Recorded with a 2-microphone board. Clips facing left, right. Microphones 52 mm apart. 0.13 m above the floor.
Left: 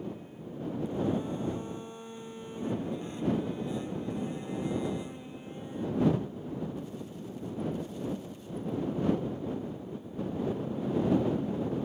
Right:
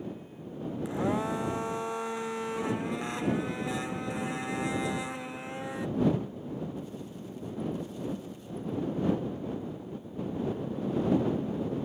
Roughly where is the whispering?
I don't hear whispering.